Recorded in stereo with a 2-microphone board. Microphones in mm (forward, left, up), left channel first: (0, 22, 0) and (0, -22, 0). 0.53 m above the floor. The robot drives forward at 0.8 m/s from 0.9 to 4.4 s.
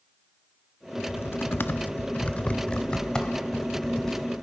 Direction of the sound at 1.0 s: 55° left (ahead or behind).